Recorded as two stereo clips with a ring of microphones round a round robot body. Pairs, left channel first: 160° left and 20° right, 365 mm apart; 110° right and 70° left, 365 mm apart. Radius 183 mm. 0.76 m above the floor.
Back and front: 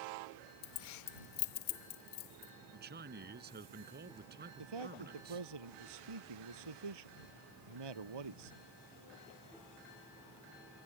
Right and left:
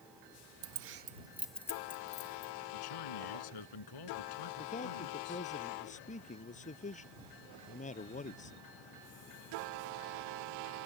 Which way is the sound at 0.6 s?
100° left.